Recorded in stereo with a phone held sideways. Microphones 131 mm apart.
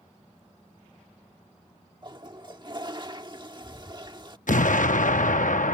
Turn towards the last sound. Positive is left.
turn(degrees=80)